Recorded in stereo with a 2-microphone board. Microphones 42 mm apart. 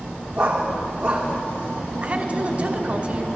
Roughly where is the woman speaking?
Right.